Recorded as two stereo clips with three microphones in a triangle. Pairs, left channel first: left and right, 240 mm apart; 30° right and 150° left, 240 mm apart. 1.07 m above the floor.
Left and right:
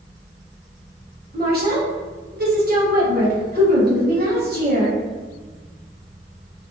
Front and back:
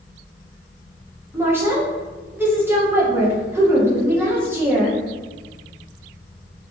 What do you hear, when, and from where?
1.3 s a woman speaking: 130° right, 0.7 m